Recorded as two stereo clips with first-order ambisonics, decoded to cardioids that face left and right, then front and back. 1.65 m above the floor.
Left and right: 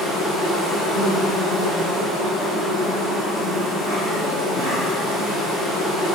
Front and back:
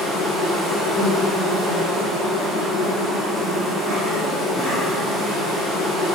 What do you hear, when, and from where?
0.0 s an insect: 120° right, 1.9 m